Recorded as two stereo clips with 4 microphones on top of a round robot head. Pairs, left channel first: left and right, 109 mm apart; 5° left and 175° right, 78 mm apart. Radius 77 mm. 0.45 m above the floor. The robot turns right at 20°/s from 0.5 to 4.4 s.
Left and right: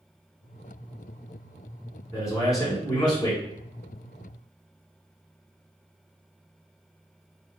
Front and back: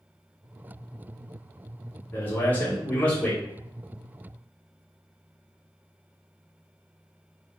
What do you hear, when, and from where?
2.1 s a man speaking: 50° left, 1.6 m; by 3.4 s 75° left, 1.6 m